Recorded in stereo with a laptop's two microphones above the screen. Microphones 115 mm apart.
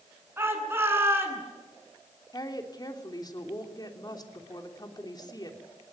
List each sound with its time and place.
0.4 s a shout: 20° right (ahead or behind), 9.5 m
2.3 s a woman speaking: 35° left (ahead or behind), 3 m